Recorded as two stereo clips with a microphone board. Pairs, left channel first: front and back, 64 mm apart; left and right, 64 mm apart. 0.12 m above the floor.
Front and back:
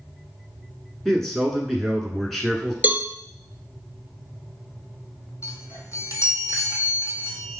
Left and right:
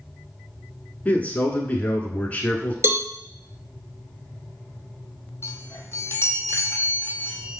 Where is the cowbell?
125° right, 0.6 m.